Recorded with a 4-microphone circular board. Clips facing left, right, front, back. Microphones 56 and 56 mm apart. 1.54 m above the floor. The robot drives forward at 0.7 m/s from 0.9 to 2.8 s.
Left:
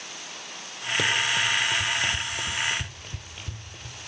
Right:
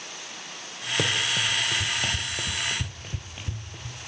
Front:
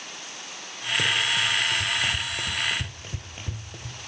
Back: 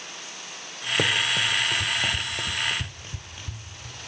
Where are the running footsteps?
165° right, 1.9 m; by 4.0 s 5° right, 2.5 m.